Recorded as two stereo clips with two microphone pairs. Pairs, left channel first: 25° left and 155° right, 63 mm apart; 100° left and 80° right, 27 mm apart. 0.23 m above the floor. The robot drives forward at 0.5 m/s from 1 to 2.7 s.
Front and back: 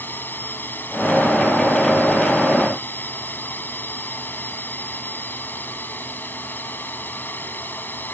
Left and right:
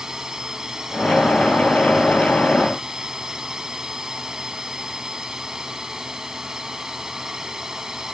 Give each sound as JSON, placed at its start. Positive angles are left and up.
{"t": 0.0, "sound": "a drone", "azimuth_deg": -15}